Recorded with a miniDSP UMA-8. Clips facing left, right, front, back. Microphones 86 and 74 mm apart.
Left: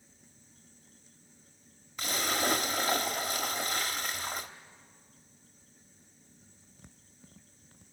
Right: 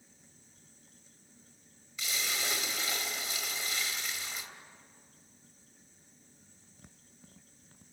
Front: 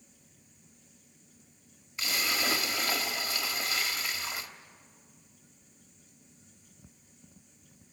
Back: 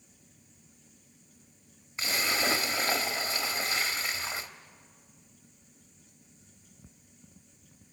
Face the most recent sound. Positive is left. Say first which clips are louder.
# left 7 dB, back 2 dB
turn(degrees=125)